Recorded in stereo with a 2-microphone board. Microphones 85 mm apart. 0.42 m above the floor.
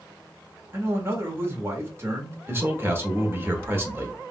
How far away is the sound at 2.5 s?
About 0.9 m.